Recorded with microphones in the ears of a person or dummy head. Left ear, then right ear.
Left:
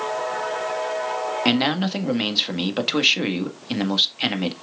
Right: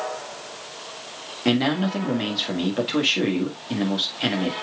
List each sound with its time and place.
1.4 s a man speaking: 40° left (ahead or behind), 1.5 m